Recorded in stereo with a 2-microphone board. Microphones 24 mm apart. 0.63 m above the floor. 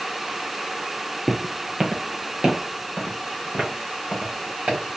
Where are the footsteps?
15° right (ahead or behind), 0.7 m; by 4.8 s 55° right (ahead or behind), 3 m.